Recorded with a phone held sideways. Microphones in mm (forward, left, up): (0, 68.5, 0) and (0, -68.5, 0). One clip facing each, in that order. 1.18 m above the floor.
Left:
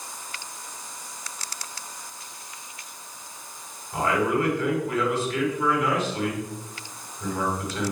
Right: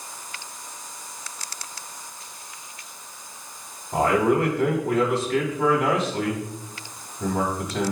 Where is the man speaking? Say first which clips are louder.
Right 4 dB; 80° right, 4 m.